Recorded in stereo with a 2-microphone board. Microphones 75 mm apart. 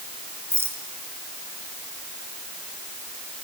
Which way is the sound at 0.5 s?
35° right (ahead or behind).